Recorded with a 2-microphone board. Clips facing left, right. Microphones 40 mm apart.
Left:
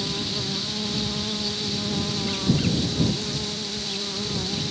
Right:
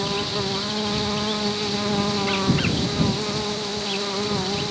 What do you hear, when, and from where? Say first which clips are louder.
0.0 s an insect: right 4 dB; 40° right (ahead or behind)